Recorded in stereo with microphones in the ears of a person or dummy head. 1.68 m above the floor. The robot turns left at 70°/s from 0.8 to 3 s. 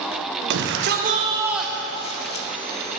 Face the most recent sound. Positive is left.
turn(degrees=85)